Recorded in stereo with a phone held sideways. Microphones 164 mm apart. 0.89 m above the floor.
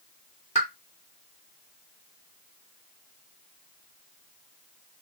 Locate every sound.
0.6 s a pop: 45° left (ahead or behind), 2.5 m